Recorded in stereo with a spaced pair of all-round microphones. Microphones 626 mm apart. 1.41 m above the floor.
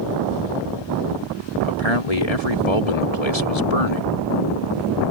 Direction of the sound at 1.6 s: 70° left (ahead or behind).